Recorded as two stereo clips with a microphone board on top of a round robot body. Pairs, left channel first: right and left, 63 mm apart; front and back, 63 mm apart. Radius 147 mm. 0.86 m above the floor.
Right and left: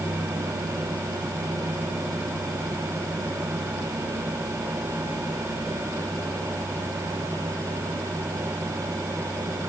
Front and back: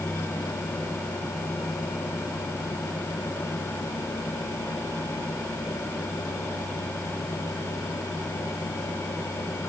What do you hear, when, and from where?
Only background noise.